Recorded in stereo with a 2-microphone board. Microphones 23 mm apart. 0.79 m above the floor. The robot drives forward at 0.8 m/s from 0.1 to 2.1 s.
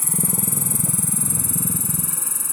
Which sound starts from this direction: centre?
An insect, at 0.0 s.